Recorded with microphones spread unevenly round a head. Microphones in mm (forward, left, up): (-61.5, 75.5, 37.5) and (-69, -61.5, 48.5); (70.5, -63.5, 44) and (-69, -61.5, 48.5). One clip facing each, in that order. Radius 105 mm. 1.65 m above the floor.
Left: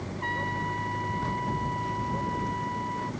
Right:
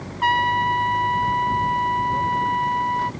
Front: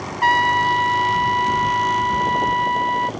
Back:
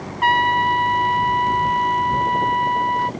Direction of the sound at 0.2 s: 50° right.